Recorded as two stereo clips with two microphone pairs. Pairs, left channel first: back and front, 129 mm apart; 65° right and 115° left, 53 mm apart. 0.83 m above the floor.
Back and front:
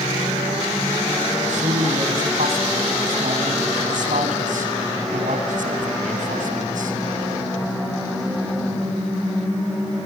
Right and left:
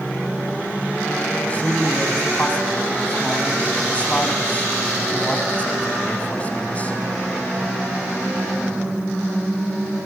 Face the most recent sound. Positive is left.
turn(degrees=0)